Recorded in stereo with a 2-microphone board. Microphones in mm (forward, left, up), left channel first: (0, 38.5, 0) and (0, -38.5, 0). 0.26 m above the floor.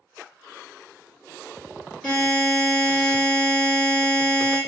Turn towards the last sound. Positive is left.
turn(degrees=15)  # may be behind; listen again after turning